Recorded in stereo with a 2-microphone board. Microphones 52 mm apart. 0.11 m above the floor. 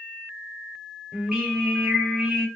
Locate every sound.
1.1 s singing: 15° right (ahead or behind), 2 m